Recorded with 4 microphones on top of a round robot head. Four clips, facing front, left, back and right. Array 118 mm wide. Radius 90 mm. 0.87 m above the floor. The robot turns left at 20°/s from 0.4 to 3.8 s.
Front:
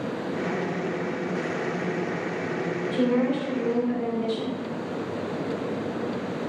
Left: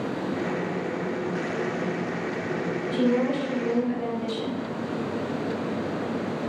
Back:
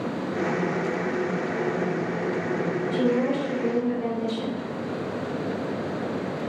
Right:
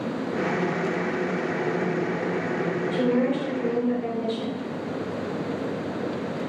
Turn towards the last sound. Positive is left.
turn(degrees=5)